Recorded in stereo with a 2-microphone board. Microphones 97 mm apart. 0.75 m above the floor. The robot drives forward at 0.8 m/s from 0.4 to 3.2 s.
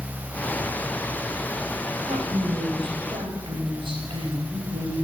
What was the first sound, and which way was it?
A woman speaking, 75° right (ahead or behind).